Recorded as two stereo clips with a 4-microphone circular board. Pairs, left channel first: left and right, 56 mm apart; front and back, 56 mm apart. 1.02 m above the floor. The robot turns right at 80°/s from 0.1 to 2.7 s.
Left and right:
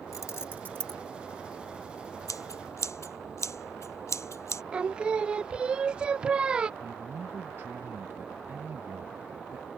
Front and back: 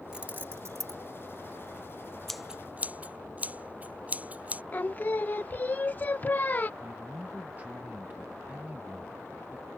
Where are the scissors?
85° left; by 4.6 s 120° left.